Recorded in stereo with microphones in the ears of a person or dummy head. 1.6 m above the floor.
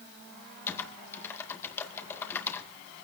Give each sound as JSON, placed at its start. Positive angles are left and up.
{"t": 0.7, "sound": "typing on a keyboard", "side_deg": 15, "distance_m": 2.0}